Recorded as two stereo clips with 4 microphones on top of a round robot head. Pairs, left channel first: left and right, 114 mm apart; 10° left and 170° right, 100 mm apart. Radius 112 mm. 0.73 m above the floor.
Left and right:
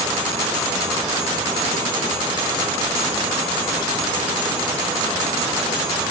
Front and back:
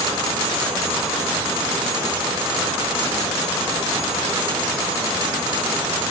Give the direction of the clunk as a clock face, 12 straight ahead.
I don't hear a clunk.